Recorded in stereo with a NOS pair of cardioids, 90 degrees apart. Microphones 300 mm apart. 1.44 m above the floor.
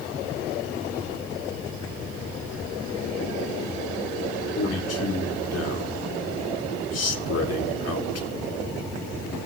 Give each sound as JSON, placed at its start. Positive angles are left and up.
{"t": 4.5, "sound": "a man speaking", "azimuth_deg": 55, "distance_m": 2.0}